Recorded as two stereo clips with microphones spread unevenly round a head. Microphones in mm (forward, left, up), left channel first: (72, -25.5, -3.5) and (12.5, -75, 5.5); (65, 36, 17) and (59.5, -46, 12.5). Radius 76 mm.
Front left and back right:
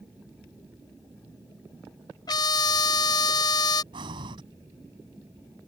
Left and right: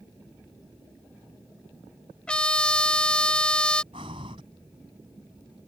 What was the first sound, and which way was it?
A trumpet, 10° left.